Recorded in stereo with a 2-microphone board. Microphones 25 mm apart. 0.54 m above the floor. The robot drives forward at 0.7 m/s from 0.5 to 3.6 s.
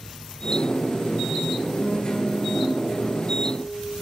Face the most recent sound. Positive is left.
turn(degrees=50)  # may be behind; listen again after turning